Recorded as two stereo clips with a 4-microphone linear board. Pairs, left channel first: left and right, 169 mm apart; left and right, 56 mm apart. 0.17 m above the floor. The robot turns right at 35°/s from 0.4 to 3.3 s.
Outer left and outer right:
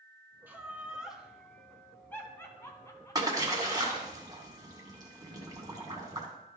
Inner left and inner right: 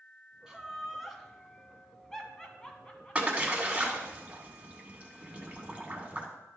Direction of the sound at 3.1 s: 25° right (ahead or behind).